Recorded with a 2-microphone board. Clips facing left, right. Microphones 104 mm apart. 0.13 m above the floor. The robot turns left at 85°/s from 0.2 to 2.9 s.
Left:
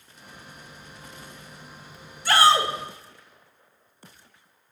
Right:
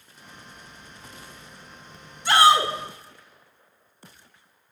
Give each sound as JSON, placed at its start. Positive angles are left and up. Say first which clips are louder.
{"t": 2.2, "sound": "a shout", "louder": "right 2 dB", "side_deg": -20, "distance_m": 1.1}